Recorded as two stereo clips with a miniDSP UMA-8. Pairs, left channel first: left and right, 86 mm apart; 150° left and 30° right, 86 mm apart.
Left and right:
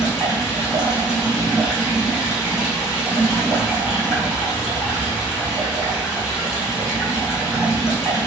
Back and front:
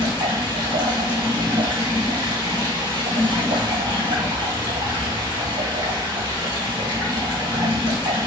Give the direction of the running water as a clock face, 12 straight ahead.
12 o'clock.